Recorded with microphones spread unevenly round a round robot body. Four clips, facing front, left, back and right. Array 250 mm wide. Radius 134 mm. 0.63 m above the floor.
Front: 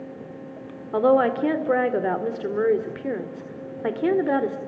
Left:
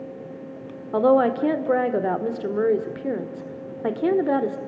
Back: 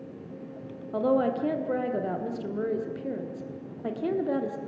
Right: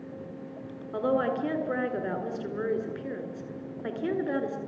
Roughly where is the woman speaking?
Ahead left.